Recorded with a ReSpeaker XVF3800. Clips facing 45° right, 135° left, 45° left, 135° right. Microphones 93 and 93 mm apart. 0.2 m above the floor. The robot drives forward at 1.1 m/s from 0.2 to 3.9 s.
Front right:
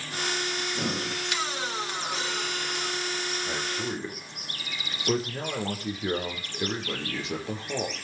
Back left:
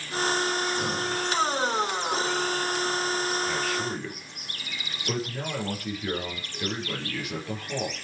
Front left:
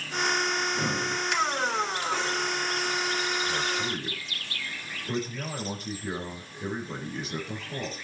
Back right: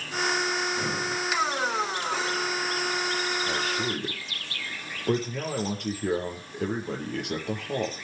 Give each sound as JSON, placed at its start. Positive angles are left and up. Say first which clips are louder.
{"t": 0.6, "sound": "breathing", "louder": "back left 3 dB, even", "azimuth_deg": -20, "distance_m": 5.0}
{"t": 3.5, "sound": "a man speaking", "louder": "back left 3 dB, back right 1 dB", "azimuth_deg": -105, "distance_m": 5.5}